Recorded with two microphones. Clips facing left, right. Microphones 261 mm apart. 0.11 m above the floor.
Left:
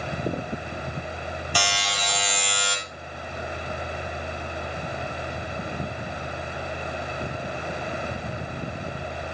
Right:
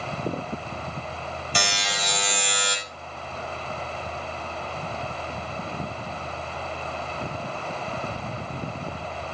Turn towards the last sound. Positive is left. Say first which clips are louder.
# right 1 dB
turn(degrees=-25)  # may be behind; listen again after turning